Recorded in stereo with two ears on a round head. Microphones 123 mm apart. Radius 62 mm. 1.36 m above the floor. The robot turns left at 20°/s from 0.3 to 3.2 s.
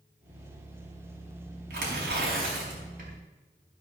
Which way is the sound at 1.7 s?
80° right.